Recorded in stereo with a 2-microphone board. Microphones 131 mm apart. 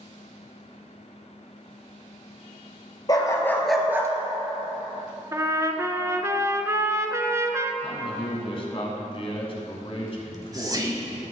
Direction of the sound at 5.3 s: 25° right (ahead or behind).